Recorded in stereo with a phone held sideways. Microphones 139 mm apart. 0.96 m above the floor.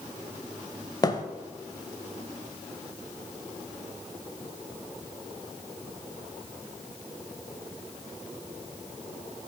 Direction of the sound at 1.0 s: 30° left (ahead or behind).